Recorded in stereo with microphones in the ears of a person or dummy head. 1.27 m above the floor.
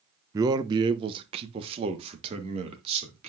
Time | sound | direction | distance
0.3 | a man speaking | 20° right (ahead or behind) | 0.5 m